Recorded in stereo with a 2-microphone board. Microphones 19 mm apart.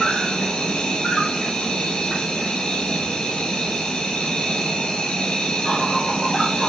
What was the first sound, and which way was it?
An insect, 60° left (ahead or behind).